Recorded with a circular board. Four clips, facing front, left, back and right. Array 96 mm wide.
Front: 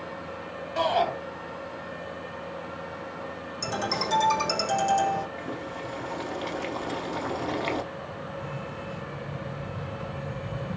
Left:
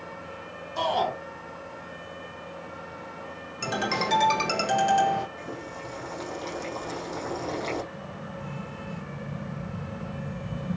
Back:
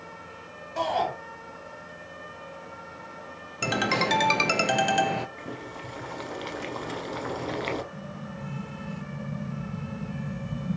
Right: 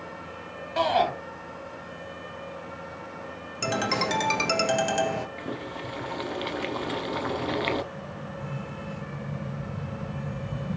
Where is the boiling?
90° right, 0.8 m.